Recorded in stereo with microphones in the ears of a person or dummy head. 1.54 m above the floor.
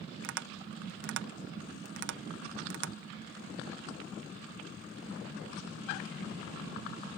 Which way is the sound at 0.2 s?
70° right (ahead or behind).